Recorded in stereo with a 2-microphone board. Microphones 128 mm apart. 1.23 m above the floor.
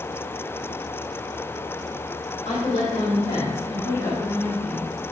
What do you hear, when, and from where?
2.5 s a woman speaking: 50° left (ahead or behind), 3 m; by 4.9 s 10° left (ahead or behind), 1.7 m